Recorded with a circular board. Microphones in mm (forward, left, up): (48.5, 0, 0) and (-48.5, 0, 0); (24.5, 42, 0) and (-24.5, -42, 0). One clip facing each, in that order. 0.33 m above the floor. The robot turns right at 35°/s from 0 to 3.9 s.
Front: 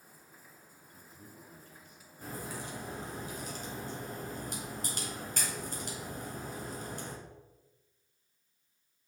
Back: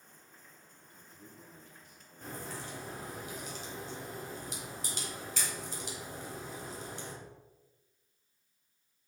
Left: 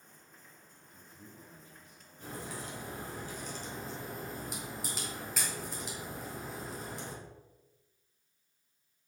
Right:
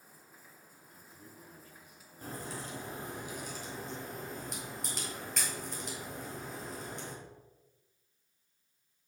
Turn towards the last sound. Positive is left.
turn(degrees=-25)